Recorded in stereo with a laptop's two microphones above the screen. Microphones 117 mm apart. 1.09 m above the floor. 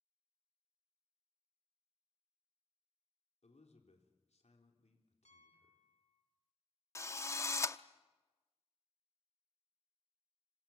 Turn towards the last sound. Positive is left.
turn(degrees=25)  # may be behind; listen again after turning